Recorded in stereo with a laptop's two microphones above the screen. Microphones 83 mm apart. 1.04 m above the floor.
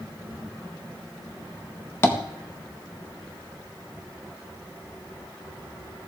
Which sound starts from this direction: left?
Tapping, at 2.0 s.